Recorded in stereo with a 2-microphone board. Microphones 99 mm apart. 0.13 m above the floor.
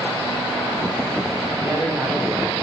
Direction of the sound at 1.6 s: 25° right (ahead or behind).